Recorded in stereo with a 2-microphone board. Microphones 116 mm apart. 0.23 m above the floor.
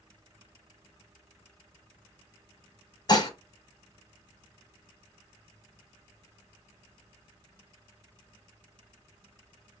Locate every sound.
3.1 s dishes clattering: 35° left (ahead or behind), 1.1 m